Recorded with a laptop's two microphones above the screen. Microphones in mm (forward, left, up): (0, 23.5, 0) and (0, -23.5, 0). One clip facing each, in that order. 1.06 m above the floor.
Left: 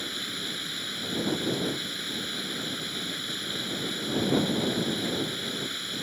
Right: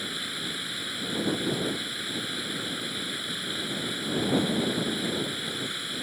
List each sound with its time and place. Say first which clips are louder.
0.0 s running water: right 1 dB; 10° right (ahead or behind)